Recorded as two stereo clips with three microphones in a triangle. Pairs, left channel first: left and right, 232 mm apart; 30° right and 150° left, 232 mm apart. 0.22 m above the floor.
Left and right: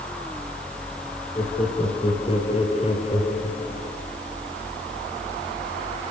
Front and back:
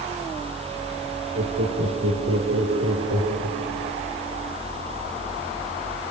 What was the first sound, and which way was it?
Laughter, 155° left.